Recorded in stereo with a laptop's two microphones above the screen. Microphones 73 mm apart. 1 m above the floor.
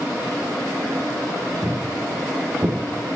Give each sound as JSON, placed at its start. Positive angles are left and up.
{"t": 1.6, "sound": "footsteps", "side_deg": -45, "distance_m": 7.0}